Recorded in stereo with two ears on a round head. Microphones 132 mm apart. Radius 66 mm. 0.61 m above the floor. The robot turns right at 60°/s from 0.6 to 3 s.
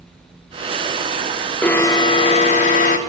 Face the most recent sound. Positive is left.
turn(degrees=95)